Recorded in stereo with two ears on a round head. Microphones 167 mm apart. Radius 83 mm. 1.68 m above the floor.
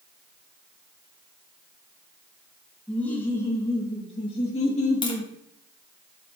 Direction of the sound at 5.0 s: 25° left (ahead or behind).